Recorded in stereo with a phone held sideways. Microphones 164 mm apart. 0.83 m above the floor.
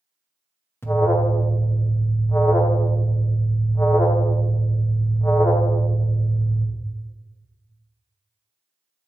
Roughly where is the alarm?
Centre.